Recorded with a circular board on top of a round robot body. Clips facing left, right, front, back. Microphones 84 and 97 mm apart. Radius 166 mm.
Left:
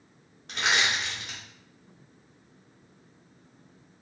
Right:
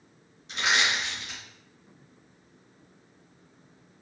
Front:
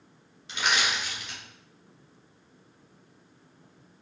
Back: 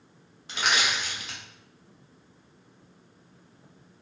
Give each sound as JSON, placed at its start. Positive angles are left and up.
{"t": 0.5, "sound": "crushing", "azimuth_deg": 130, "distance_m": 0.8}